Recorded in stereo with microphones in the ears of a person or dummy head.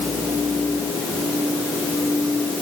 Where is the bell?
I don't hear a bell.